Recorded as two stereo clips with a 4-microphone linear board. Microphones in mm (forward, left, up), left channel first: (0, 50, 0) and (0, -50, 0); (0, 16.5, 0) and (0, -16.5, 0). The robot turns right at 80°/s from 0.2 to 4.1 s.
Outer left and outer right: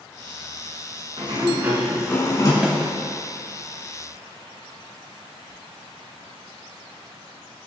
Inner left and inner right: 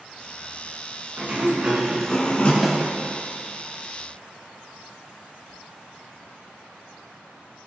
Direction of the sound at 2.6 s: 5° right (ahead or behind).